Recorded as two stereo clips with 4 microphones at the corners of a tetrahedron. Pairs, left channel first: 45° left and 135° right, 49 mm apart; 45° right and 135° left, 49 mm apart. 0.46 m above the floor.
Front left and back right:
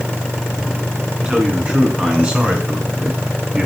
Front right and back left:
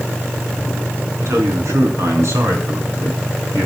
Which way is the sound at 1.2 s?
155° left.